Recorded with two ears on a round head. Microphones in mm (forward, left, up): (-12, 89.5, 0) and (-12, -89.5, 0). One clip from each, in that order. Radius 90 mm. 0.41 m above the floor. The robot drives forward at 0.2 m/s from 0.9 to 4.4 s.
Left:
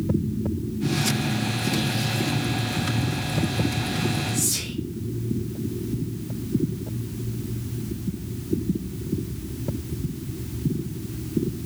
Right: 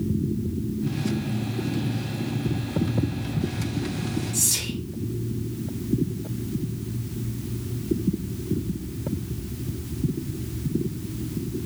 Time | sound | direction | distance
4.3 | whispering | 35° right (ahead or behind) | 0.9 m